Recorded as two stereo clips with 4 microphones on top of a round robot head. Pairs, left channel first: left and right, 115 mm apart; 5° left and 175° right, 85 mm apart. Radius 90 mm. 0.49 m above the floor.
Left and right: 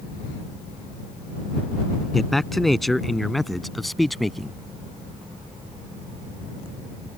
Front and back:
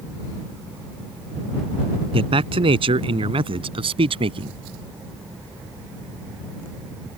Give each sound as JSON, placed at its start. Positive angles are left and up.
{"t": 2.1, "sound": "a man speaking", "azimuth_deg": 180}